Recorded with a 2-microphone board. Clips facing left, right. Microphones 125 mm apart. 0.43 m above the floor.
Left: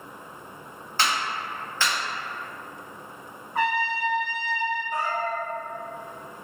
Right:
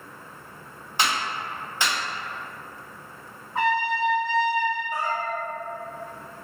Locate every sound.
1.0 s a clap: 15° right (ahead or behind), 0.9 m
3.5 s a trumpet: 20° right (ahead or behind), 1.5 m
4.9 s a cat meowing: 10° right (ahead or behind), 0.6 m